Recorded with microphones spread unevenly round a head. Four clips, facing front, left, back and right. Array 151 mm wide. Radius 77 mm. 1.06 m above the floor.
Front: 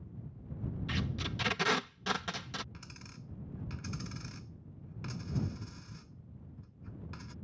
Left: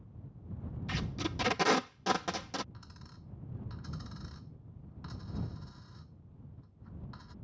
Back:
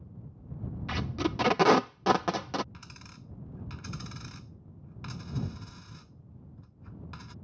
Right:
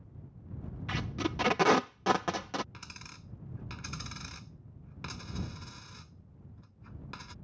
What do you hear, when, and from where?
0.9 s tape being pulled: 165° right
2.7 s a dropped coin: 90° right